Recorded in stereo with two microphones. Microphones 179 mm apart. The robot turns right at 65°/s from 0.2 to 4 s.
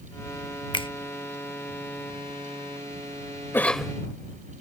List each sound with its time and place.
0.7 s a finger snap: 25° left (ahead or behind); by 0.9 s 30° left (ahead or behind)
3.5 s a cough: 15° left (ahead or behind); by 3.9 s 5° right (ahead or behind)